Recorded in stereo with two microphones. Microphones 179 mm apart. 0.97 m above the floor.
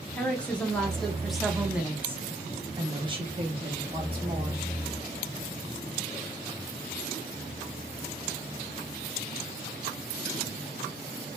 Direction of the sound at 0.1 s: 10° left (ahead or behind).